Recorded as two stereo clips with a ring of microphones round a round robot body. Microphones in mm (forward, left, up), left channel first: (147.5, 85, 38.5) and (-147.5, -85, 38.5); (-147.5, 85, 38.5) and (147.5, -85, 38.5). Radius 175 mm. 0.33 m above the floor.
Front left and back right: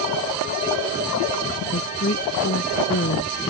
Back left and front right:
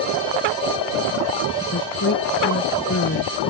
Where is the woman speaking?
95° left.